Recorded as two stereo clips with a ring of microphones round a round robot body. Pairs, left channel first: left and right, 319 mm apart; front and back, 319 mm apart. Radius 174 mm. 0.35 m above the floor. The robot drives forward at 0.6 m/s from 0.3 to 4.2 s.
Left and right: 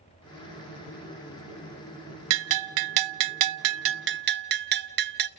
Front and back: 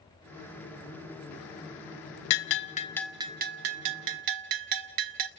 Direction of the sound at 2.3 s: 45° right.